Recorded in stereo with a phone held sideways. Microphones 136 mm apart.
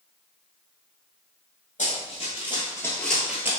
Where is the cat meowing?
I don't hear a cat meowing.